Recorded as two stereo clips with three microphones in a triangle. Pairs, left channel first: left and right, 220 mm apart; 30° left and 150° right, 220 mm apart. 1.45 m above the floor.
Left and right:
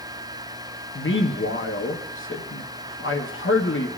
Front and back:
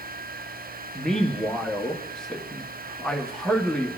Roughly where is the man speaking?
Behind left.